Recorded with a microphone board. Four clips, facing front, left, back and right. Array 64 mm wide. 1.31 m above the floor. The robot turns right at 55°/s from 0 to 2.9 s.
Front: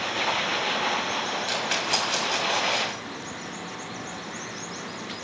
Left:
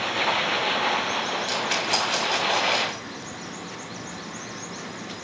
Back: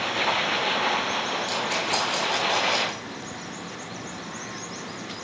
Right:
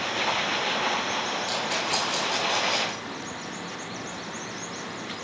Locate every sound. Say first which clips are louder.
1.5 s a rattle: left 2 dB, back 1 dB; 20° left, 2 m; by 3.0 s 100° left, 2 m